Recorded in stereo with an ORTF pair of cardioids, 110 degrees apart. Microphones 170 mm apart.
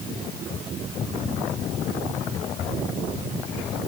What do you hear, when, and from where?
Only background noise.